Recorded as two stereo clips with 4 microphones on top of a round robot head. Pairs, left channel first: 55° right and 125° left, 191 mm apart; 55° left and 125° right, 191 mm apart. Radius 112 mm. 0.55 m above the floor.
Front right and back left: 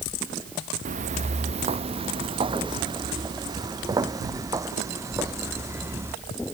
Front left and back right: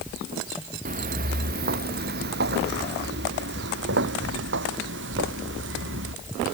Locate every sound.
0.8 s footsteps: straight behind; by 6.1 s 155° right